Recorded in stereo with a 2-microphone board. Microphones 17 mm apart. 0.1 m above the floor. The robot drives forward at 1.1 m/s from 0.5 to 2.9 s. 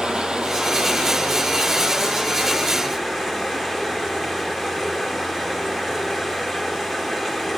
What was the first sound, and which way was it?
Running water, 65° right (ahead or behind).